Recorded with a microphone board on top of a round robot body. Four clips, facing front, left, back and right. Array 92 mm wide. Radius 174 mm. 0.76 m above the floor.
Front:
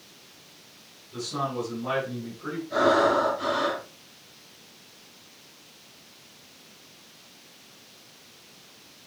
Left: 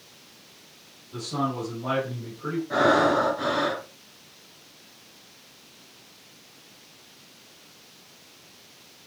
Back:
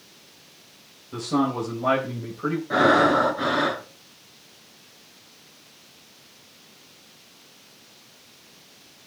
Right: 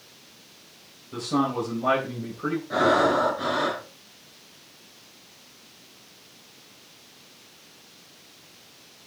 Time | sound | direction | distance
1.1 | a man speaking | 150° right | 4 m
2.7 | breathing | 175° left | 3 m